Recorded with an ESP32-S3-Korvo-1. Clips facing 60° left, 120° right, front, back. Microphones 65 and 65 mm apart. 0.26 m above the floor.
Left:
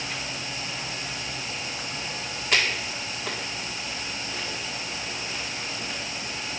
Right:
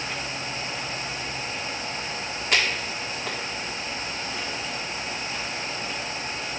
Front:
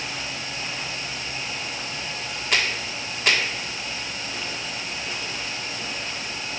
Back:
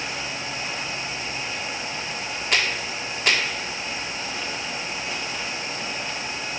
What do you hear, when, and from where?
Only background noise.